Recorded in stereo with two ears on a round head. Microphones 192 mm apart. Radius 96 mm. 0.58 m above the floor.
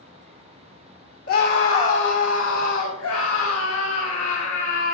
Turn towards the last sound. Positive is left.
turn(degrees=80)